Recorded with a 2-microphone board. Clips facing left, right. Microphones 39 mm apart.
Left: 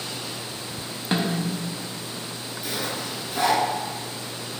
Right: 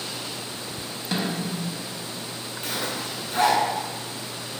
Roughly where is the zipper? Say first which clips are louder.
Even; right.